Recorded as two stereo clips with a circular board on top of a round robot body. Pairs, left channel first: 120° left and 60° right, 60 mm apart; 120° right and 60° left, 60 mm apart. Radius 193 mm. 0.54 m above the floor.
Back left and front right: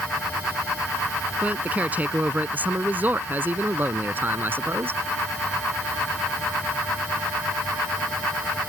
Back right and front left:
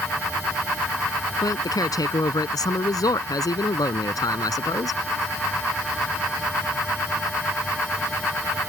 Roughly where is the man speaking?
Behind right.